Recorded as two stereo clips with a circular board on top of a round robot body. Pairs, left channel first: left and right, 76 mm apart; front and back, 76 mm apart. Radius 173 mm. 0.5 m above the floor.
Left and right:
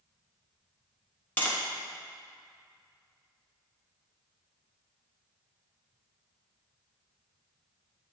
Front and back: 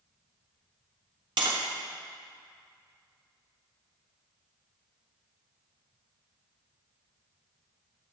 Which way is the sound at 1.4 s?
160° left.